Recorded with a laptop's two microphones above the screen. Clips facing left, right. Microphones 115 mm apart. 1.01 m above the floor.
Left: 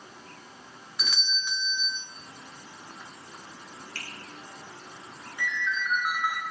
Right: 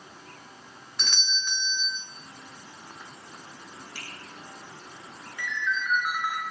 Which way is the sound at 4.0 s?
10° right (ahead or behind).